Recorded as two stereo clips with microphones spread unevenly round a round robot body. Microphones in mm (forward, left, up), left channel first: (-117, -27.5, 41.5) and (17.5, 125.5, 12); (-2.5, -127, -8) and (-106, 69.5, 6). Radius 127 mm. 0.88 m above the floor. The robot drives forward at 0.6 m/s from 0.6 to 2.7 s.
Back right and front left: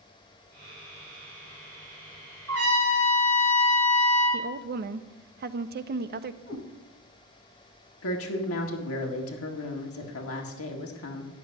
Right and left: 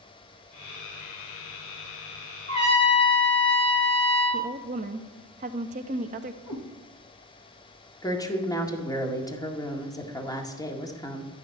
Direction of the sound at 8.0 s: 135° right.